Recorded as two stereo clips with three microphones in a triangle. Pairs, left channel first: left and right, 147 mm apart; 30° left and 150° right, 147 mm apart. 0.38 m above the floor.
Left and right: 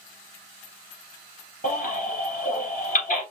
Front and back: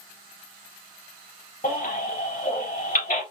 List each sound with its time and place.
1.6 s a baby crying: 55° left, 2.5 m